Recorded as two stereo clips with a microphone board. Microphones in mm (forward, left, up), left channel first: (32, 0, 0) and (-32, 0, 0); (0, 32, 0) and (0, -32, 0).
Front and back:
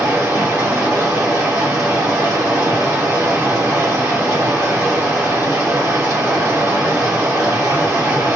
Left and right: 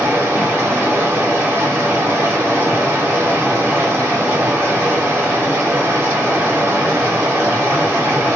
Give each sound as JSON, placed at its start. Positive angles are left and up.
{"t": 0.0, "sound": "running water", "azimuth_deg": -140, "distance_m": 1.5}